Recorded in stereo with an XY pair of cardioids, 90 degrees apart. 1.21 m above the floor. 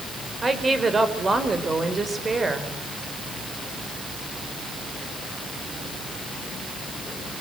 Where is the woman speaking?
30° right, 5 m.